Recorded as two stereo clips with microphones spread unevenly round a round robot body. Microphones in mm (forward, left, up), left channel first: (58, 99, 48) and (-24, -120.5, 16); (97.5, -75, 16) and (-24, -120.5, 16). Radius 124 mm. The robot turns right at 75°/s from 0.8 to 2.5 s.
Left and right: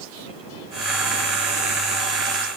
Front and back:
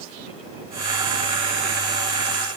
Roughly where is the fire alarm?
I don't hear a fire alarm.